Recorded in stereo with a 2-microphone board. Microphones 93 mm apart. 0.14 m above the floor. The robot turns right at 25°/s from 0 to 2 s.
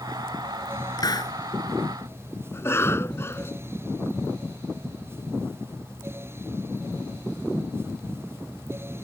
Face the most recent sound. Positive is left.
turn(degrees=25)  # may be behind; listen again after turning